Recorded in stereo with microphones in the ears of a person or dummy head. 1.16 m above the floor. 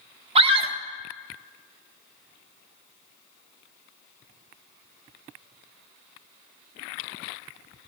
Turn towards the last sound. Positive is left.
turn(degrees=-30)  # may be behind; listen again after turning